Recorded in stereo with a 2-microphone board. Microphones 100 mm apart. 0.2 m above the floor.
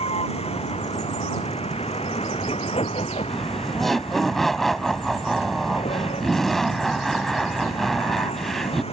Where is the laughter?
5° left (ahead or behind).